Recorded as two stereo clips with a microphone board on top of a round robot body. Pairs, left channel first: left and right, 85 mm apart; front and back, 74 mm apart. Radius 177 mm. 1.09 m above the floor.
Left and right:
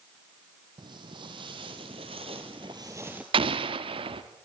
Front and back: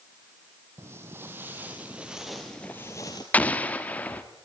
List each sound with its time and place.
0.8 s footsteps: 125° right, 1.8 m; by 3.2 s 15° right, 1.2 m
3.3 s an explosion: 70° right, 1.0 m